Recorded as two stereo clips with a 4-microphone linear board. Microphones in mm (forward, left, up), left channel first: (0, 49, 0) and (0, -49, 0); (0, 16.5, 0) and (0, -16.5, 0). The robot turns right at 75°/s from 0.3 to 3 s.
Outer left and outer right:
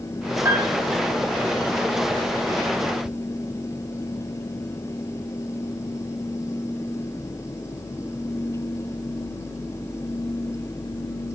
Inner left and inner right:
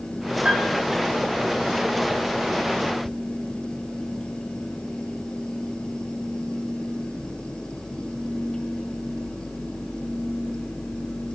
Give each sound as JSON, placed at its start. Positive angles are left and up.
{"t": 0.5, "sound": "a piano", "side_deg": -30, "distance_m": 5.5}